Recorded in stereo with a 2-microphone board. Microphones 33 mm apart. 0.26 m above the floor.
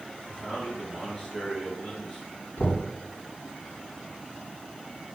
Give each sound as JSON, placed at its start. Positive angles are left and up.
{"t": 0.2, "sound": "a man speaking", "side_deg": 15, "distance_m": 3.5}
{"t": 2.6, "sound": "knocking", "side_deg": 65, "distance_m": 2.5}